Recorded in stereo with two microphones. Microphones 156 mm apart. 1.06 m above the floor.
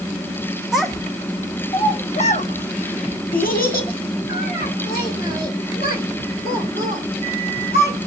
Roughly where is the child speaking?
Centre.